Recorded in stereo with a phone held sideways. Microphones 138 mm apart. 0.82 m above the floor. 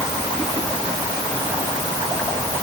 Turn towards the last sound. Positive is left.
No sound to turn to.